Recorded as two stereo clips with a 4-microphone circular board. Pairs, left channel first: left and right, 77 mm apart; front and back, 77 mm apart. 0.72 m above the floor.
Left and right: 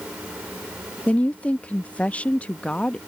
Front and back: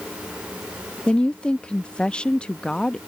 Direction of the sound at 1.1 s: 55° left.